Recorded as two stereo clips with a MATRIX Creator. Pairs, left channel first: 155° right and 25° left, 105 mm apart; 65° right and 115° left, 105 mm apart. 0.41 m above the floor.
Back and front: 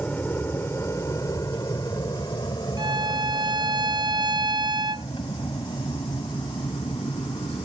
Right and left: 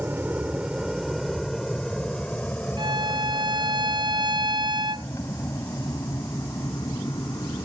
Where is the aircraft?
155° left; by 7.7 s 120° right.